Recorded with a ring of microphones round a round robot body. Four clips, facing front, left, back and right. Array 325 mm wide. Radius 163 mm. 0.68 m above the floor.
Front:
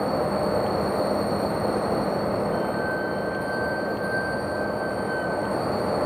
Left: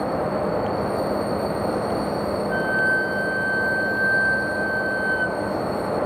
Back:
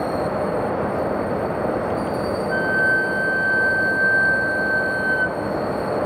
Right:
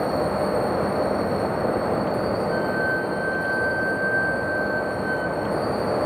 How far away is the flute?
About 1.6 m.